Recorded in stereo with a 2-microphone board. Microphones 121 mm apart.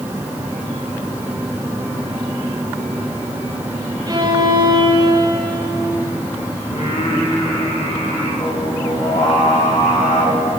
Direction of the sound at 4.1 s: 35° right (ahead or behind).